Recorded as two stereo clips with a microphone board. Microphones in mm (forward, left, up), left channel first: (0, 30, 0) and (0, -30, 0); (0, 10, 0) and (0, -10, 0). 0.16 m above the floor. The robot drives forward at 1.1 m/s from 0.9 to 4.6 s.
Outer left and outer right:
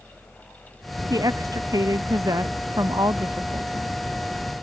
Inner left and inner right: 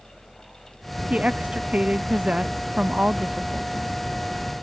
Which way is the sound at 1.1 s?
80° right.